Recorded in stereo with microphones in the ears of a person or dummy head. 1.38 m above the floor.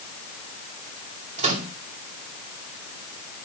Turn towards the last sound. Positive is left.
turn(degrees=-35)  # may be behind; listen again after turning